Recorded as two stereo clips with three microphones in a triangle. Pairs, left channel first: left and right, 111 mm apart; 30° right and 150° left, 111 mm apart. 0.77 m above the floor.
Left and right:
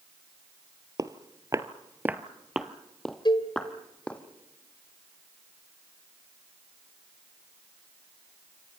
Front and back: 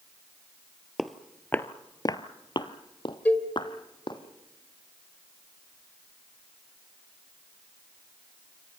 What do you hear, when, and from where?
1.0 s footsteps: 120° right, 0.9 m; by 4.2 s 10° left, 2 m
3.2 s a cowbell: 45° left, 2.5 m